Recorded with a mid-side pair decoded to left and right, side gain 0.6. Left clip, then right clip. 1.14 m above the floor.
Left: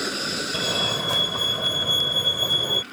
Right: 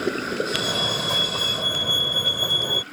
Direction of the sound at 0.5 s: Straight ahead.